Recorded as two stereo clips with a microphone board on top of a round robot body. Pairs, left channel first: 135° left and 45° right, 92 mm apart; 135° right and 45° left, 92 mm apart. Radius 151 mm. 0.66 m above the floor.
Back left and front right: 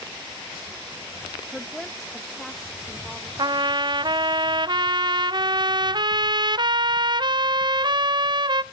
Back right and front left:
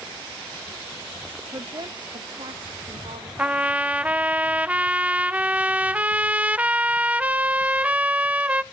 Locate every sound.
1.5 s a woman speaking: 45° left, 0.8 m; by 3.3 s 50° left, 1.7 m
3.4 s a trumpet: 30° right, 0.7 m